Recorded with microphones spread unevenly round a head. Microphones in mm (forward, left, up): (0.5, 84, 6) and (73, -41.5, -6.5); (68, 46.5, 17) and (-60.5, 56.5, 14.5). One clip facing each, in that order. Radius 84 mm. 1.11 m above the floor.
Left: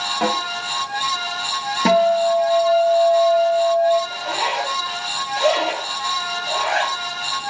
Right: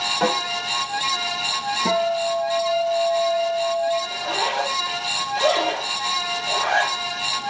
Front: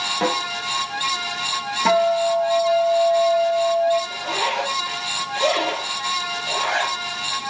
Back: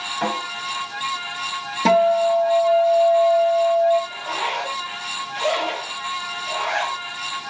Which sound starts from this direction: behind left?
A guitar, at 1.9 s.